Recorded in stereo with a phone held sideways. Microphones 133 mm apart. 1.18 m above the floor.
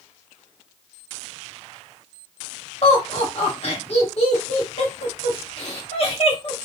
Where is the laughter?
50° left (ahead or behind), 1.4 m.